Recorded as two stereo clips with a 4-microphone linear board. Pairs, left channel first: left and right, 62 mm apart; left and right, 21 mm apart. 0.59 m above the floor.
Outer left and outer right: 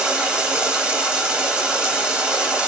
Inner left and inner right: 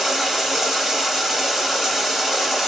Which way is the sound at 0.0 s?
15° right (ahead or behind).